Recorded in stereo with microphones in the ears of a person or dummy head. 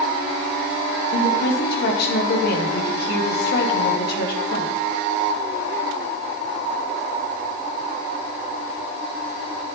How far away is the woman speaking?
About 2.5 m.